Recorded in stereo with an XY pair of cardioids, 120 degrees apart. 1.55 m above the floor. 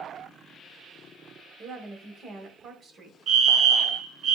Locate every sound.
1.6 s a woman speaking: 45° right, 1.3 m
3.3 s a fire alarm: 65° right, 1.7 m